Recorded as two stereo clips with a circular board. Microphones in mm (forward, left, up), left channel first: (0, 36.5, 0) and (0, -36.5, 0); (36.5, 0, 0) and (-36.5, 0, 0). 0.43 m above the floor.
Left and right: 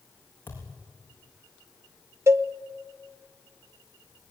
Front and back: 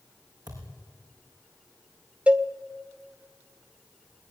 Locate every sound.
0.5 s a thud: 150° left, 6 m
2.3 s a cowbell: 115° right, 0.9 m